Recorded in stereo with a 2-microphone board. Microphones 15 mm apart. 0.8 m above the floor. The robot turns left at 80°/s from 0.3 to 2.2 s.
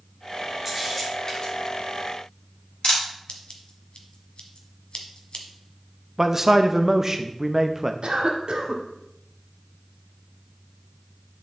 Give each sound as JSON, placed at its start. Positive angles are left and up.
{"t": 0.7, "sound": "a camera shutter", "side_deg": -20, "distance_m": 3.0}
{"t": 3.3, "sound": "scissors", "side_deg": 60, "distance_m": 1.2}
{"t": 6.2, "sound": "a man speaking", "side_deg": -15, "distance_m": 0.6}
{"t": 8.0, "sound": "a cough", "side_deg": -65, "distance_m": 1.6}